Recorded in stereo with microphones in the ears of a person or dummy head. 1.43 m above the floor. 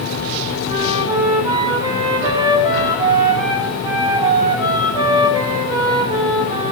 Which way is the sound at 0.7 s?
20° right (ahead or behind).